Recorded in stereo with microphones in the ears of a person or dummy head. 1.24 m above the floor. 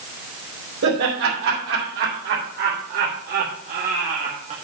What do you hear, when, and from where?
0.8 s laughter: 65° right (ahead or behind), 3 m; by 4.5 s 45° right (ahead or behind), 1.1 m